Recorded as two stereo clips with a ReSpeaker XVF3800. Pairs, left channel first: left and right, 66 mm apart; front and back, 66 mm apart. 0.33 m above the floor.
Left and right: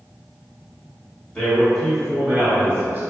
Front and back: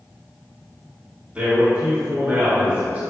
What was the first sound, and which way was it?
A man speaking, 145° left.